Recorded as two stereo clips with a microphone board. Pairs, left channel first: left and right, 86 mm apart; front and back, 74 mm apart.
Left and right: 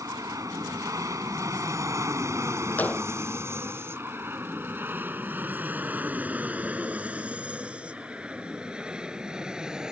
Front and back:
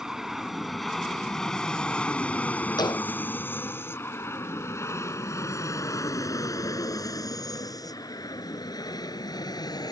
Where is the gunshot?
20° left.